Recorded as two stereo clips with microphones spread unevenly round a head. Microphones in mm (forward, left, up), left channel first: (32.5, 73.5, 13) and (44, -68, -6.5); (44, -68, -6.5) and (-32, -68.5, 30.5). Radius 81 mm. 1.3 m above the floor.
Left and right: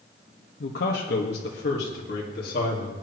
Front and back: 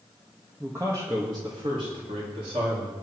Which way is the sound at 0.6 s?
100° left.